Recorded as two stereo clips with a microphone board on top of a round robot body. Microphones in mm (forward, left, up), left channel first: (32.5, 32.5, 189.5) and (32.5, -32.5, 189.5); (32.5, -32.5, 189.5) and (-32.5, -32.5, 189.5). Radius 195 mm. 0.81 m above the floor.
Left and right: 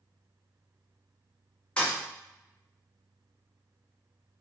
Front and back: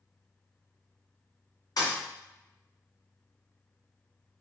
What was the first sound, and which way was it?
A thud, 15° left.